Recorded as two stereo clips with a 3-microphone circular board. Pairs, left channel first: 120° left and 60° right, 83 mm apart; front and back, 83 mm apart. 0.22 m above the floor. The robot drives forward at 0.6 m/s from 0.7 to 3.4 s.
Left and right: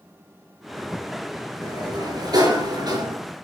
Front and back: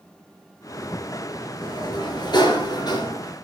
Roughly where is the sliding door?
Ahead right.